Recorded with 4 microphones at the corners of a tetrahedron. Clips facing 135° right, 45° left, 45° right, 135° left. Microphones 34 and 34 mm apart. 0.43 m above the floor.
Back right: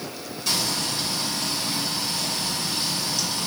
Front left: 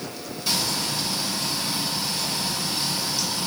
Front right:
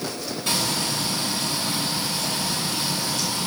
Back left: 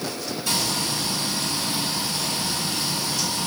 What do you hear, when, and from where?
0.5 s frying: 40° right, 2.5 m